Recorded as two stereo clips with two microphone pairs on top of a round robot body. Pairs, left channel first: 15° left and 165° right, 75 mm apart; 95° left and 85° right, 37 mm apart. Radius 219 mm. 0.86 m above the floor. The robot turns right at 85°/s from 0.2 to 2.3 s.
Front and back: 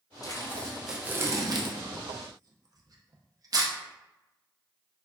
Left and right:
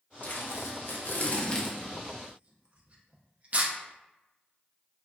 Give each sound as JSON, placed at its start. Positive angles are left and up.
{"t": 0.2, "sound": "tape being pulled", "azimuth_deg": 55, "distance_m": 0.6}